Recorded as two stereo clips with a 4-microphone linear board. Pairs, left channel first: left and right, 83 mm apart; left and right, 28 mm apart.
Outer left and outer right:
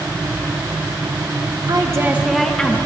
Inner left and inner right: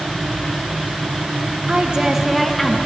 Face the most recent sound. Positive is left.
turn(degrees=15)  # may be behind; listen again after turning